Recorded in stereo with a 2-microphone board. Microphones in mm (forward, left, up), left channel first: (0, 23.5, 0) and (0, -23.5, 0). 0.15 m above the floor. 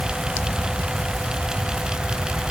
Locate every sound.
Only background noise.